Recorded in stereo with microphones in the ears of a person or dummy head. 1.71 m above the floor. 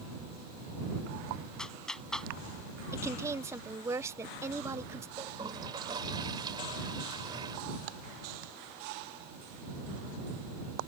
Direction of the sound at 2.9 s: 20° right (ahead or behind).